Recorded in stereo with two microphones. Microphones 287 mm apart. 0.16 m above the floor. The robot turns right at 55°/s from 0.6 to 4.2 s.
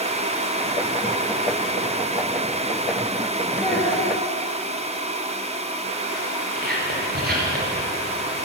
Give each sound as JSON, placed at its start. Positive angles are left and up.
{"t": 3.6, "sound": "a child speaking", "azimuth_deg": 15, "distance_m": 2.0}
{"t": 6.5, "sound": "whispering", "side_deg": -35, "distance_m": 3.0}